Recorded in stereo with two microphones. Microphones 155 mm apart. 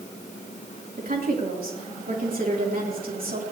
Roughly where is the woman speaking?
Right.